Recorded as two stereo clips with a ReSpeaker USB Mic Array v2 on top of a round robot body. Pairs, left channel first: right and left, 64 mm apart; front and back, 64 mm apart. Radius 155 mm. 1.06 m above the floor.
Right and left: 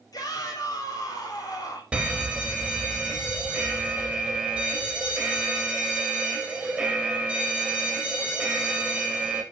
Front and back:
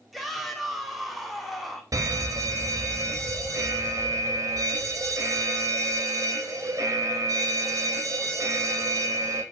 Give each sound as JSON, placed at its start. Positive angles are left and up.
{"t": 0.1, "sound": "a shout", "azimuth_deg": -95, "distance_m": 5.5}
{"t": 1.9, "sound": "an alarm", "azimuth_deg": 165, "distance_m": 3.5}